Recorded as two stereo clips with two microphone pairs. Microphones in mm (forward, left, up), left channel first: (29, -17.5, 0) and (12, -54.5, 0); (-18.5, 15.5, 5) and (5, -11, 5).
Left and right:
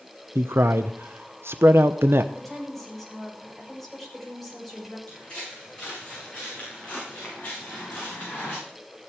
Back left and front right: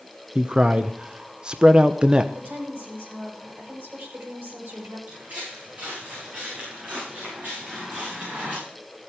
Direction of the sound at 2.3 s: 20° right.